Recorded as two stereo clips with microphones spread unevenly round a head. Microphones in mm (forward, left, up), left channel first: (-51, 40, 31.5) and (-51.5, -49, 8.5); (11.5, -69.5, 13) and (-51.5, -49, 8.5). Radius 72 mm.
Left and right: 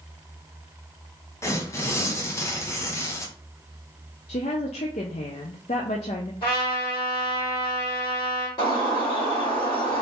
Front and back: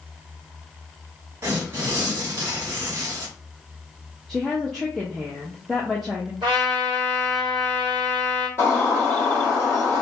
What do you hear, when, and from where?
1.4 s tearing paper: 110° left, 0.7 m
4.3 s a woman speaking: 70° left, 0.5 m
6.4 s a trumpet: 110° left, 2 m
8.6 s a bird: 90° left, 2 m